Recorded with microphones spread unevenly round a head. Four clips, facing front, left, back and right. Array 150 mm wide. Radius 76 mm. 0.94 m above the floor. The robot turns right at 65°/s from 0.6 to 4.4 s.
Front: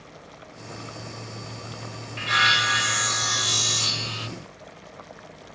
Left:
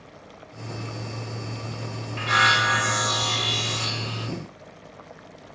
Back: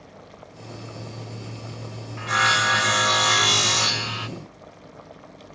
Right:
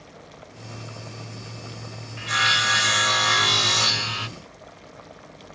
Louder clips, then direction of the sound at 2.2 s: Left 4 dB, back 1 dB; 120° left.